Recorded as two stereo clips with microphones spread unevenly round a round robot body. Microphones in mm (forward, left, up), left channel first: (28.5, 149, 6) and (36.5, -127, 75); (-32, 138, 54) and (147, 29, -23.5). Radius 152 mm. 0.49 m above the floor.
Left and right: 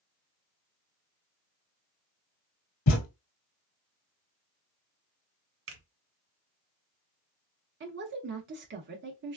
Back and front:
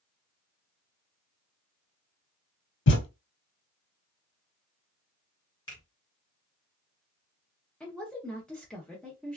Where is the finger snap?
125° right, 1.6 m.